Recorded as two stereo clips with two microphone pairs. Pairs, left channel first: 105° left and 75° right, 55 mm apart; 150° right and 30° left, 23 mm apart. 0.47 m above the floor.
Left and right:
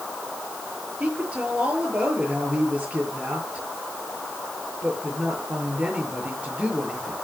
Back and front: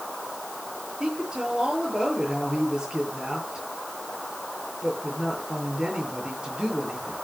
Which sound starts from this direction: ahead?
A woman speaking, at 1.0 s.